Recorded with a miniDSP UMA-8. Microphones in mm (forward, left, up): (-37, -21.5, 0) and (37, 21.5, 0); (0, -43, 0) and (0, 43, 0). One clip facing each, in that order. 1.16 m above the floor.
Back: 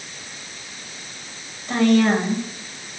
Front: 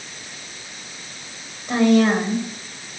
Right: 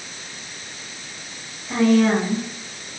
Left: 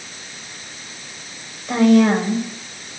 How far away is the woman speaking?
About 6.5 m.